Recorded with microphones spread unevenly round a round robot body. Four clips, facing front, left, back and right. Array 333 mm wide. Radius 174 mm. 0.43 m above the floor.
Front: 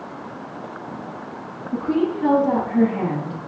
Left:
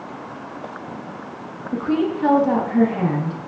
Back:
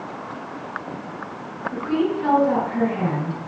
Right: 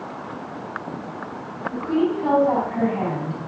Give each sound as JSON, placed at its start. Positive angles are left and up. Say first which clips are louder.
{"t": 1.7, "sound": "a woman speaking", "louder": "left 1 dB, front 1 dB", "azimuth_deg": 85, "distance_m": 3.5}